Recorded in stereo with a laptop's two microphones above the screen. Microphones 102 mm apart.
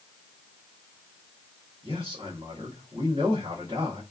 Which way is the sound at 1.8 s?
65° right (ahead or behind).